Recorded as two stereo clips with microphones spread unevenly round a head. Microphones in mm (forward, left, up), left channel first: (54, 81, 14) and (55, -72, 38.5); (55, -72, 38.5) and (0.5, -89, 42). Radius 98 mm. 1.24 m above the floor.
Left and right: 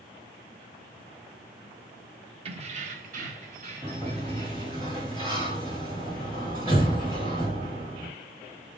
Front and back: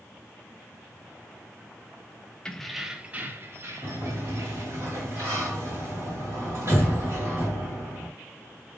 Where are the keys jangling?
60° right, 0.7 m; by 4.8 s 155° right, 1.6 m.